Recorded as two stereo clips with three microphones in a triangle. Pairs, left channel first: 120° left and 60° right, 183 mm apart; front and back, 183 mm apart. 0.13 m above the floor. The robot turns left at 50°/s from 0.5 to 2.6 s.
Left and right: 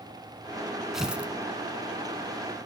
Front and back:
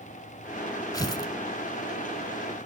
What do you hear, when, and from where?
0.9 s tearing paper: 25° left, 0.7 m; by 1.3 s 5° left, 0.7 m